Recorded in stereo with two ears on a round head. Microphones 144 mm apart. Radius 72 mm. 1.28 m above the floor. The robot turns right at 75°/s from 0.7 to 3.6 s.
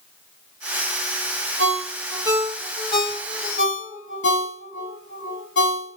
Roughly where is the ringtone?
Right.